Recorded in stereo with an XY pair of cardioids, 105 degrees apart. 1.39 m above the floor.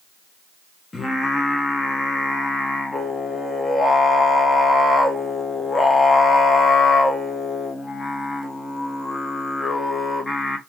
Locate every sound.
0.9 s singing: 20° left, 0.8 m